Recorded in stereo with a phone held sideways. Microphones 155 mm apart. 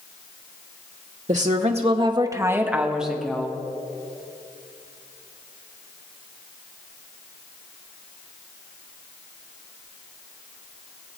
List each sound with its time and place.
1.3 s a woman speaking: 50° right (ahead or behind), 0.8 m; by 3.5 s 5° left (ahead or behind), 1.4 m